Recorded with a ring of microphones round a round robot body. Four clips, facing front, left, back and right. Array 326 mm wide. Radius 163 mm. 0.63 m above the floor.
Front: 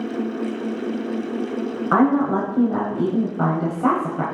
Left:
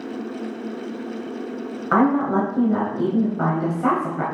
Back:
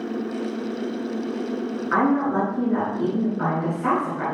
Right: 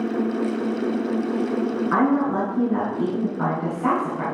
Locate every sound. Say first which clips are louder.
1.9 s a woman speaking: left 4 dB, front 3 dB; 35° left, 4 m